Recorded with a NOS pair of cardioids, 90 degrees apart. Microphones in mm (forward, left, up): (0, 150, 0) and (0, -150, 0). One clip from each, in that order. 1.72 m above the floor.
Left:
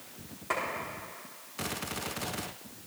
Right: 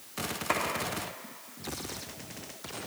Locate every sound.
0.5 s a clap: 45° right, 4 m